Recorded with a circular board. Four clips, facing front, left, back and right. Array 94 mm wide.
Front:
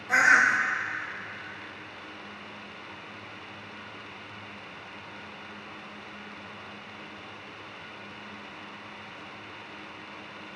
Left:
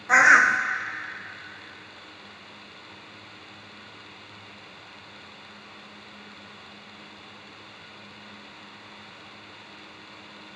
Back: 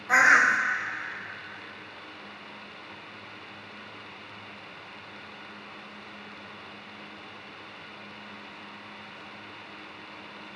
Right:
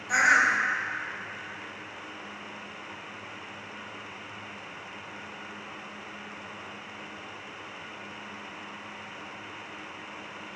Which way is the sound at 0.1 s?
105° left.